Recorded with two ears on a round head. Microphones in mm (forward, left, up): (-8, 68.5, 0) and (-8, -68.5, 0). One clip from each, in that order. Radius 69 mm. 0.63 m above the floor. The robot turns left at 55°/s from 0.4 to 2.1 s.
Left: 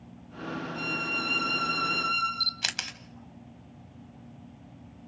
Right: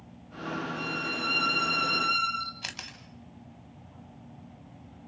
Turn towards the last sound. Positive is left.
turn(degrees=45)  # may be behind; listen again after turning